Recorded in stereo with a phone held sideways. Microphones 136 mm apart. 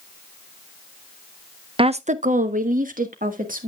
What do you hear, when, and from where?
1.8 s a woman speaking: 40° right (ahead or behind), 0.5 m; by 3.7 s 90° right, 2 m